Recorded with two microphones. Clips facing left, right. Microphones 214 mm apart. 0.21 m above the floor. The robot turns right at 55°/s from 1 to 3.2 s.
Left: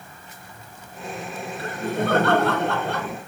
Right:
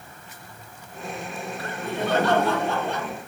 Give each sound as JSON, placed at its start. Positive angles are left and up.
{"t": 1.6, "sound": "laughter", "azimuth_deg": 35, "distance_m": 3.0}